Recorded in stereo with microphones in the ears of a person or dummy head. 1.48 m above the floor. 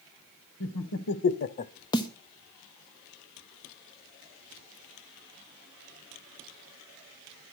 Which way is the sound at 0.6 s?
80° left.